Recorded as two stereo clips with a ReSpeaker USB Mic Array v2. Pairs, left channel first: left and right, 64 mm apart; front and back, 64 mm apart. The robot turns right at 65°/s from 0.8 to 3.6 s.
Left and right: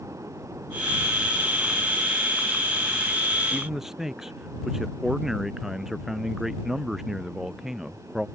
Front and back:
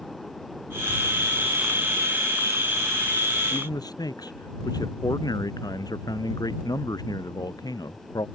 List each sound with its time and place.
3.5 s a man speaking: 15° right; by 8.3 s 5° right